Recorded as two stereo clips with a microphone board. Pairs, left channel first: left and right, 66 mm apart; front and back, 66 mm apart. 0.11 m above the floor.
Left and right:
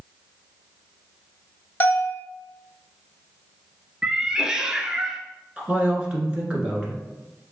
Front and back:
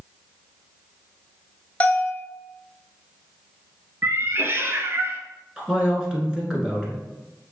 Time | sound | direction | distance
1.8 | a bell | 50° left | 0.9 m
4.0 | a cat meowing | 160° right | 0.5 m
5.6 | a man speaking | 125° right | 1.2 m